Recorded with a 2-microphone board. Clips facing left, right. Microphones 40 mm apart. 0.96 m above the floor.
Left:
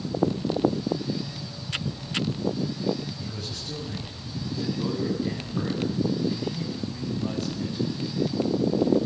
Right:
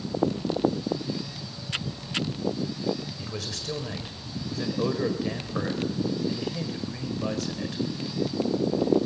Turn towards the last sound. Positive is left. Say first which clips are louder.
# right 1 dB
turn(degrees=-80)